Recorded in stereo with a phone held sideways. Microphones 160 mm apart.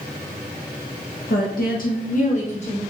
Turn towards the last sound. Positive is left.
turn(degrees=40)  # may be behind; listen again after turning